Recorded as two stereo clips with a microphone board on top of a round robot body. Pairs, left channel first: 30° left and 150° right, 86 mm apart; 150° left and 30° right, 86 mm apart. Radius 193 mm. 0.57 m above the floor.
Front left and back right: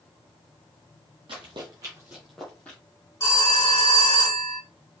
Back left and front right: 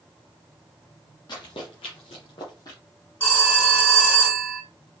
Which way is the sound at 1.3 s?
175° right.